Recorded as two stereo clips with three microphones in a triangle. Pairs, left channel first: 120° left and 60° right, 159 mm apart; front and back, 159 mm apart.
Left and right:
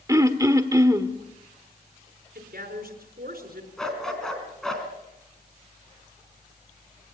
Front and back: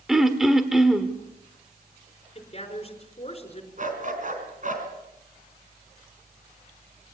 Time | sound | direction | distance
0.1 | throat clearing | 100° right | 1.4 m
2.4 | a woman speaking | 50° right | 5 m
3.8 | a dog barking | 155° right | 3.5 m